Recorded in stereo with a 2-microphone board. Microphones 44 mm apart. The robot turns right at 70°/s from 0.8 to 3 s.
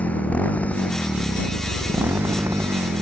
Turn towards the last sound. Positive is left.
turn(degrees=-60)